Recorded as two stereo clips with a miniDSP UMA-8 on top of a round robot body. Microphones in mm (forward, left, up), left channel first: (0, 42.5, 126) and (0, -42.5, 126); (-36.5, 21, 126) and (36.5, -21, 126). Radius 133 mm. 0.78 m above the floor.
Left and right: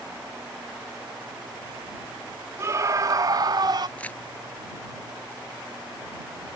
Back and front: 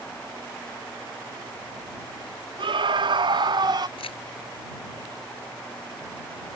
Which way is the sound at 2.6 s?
35° right.